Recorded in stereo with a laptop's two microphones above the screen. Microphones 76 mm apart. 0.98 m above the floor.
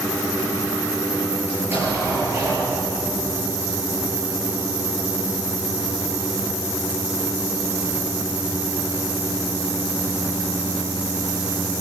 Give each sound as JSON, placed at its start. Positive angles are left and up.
{"t": 1.5, "sound": "an explosion", "side_deg": -30, "distance_m": 9.0}